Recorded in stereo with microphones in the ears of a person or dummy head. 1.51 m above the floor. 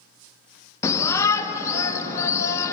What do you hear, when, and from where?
0.8 s a shout: 15° left (ahead or behind), 0.6 m